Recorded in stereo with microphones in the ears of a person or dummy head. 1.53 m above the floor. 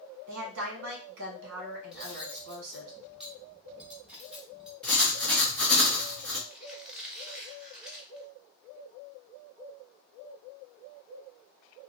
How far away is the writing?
About 1.0 m.